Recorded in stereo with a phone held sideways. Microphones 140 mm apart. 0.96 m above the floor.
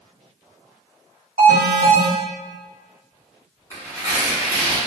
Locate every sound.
1.4 s an alarm: 75° right (ahead or behind), 1.7 m
3.7 s tearing paper: 25° right (ahead or behind), 1.7 m